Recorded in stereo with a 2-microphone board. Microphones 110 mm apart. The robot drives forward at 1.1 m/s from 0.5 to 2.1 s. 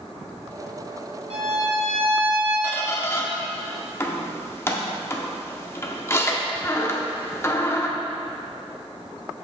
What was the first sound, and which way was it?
A violin, 75° right (ahead or behind).